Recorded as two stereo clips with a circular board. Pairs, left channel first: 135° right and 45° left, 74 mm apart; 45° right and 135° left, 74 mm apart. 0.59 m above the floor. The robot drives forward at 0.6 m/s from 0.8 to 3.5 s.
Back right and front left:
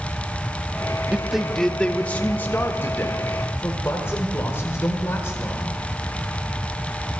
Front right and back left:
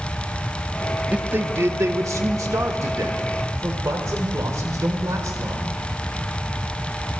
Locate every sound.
1.1 s a man speaking: 100° left, 0.6 m; by 5.8 s 170° left, 1.6 m